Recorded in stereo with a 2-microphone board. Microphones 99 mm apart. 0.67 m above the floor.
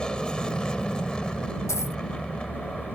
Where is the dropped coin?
30° left (ahead or behind).